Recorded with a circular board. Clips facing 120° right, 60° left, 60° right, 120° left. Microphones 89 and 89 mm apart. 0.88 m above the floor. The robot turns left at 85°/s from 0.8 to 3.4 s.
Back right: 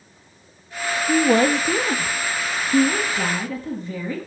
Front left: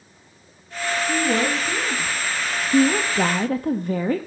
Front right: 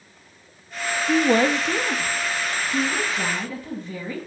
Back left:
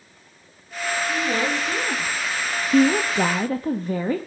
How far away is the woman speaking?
About 1.0 m.